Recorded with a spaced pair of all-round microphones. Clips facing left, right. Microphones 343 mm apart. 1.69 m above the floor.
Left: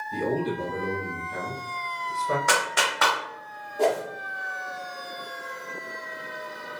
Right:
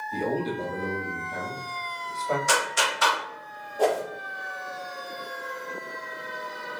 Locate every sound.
0.1 s a man speaking: 20° left (ahead or behind), 1.5 m
2.5 s a clap: 70° left (ahead or behind), 0.8 m
3.8 s a whoosh: 30° left (ahead or behind), 1.5 m